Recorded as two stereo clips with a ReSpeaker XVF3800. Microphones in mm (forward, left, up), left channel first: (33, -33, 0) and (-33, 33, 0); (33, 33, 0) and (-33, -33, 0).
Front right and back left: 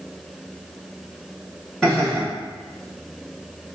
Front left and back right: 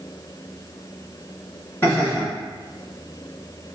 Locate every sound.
1.8 s laughter: 30° left, 1.6 m